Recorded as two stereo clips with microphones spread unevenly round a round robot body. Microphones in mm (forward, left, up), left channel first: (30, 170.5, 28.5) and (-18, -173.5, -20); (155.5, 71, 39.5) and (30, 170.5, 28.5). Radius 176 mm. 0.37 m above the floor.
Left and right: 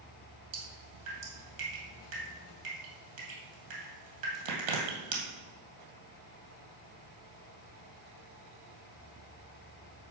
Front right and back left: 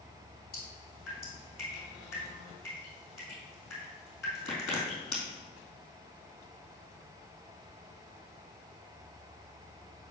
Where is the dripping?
100° right, 2 m.